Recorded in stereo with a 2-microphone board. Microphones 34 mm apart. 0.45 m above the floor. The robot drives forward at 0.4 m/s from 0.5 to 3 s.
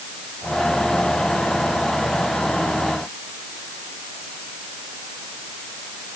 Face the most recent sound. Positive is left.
No sound to turn to.